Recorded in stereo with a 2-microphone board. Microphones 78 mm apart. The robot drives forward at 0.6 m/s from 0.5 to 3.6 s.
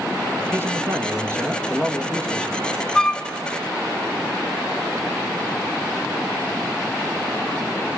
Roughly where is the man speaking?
Right.